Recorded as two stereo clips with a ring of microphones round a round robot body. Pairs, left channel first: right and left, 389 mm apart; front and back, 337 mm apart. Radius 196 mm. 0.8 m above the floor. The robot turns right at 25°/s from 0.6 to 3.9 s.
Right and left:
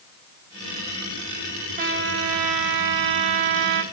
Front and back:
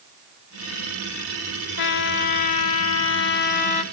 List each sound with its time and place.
1.8 s a trumpet: 20° left, 1.7 m; by 3.8 s 70° left, 1.7 m